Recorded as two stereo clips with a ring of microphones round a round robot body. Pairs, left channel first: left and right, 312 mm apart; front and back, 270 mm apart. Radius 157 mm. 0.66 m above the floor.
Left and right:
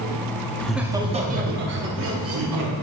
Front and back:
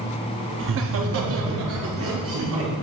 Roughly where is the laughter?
Behind.